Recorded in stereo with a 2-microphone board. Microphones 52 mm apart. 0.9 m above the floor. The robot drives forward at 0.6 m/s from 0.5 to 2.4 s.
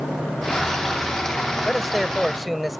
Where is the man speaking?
5° right (ahead or behind).